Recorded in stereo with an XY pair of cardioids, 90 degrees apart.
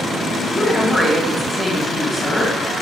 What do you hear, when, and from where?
0.5 s a woman speaking: 5° right, 0.9 m